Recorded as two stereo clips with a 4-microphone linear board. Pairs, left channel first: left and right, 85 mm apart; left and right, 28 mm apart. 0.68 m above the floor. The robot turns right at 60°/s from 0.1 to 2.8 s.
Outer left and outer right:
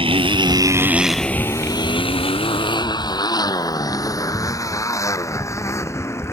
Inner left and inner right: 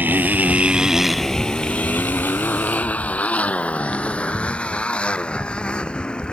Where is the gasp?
I don't hear a gasp.